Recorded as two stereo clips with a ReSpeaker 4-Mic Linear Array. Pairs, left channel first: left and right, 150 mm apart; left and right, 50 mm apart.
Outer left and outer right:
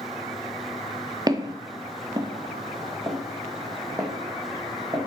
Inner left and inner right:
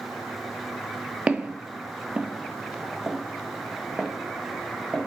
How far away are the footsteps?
About 0.7 m.